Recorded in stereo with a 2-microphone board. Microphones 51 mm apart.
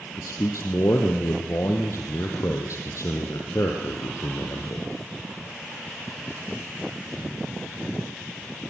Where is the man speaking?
70° left (ahead or behind), 3 m.